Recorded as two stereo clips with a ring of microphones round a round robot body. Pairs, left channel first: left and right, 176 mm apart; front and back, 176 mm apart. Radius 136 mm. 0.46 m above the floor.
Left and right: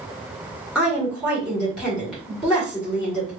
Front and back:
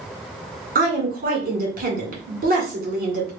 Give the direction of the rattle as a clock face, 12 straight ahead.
No rattle in this recording.